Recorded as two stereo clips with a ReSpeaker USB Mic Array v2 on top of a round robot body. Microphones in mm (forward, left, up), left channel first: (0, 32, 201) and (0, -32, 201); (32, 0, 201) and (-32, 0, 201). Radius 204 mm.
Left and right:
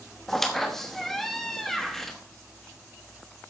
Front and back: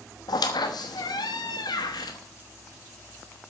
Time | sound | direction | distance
0.3 | a squeak | 5° left | 1.0 m